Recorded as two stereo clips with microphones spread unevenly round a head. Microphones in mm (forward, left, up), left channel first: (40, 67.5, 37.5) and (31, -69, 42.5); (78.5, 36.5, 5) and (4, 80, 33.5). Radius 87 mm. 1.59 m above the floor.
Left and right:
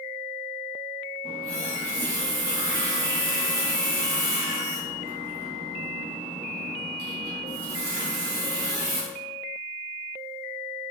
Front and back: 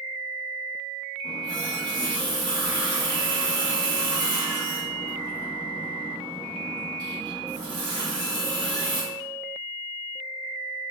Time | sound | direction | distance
1.2 | a running tap | 135° right | 2 m